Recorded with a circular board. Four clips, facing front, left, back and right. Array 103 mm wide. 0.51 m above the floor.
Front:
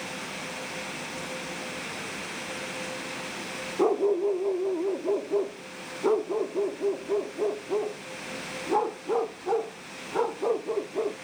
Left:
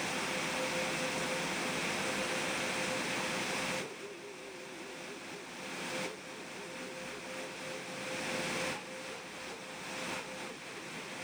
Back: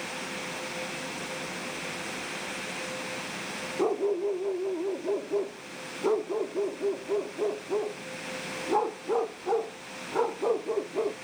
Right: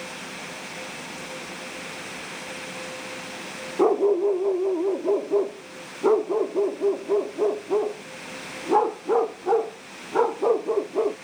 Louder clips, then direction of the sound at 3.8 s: Right 26 dB, front 4 dB; 75° right.